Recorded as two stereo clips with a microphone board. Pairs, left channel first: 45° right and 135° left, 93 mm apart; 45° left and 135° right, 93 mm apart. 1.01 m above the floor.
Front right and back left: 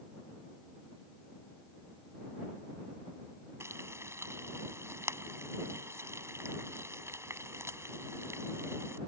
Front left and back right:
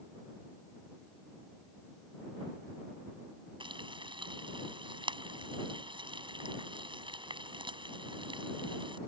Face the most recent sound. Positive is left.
turn(degrees=-165)